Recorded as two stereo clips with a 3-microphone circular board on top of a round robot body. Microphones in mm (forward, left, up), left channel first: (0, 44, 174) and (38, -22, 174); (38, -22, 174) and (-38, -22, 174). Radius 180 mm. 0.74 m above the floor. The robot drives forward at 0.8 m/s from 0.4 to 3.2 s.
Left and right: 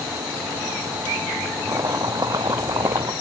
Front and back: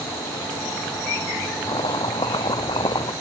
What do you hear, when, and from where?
1.7 s chopping: 15° right; by 3.1 s 20° right